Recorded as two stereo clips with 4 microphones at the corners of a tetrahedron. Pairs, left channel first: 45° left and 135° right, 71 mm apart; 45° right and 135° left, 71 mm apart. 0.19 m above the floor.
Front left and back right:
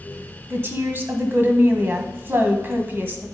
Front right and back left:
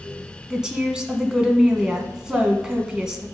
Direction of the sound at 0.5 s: 155° right.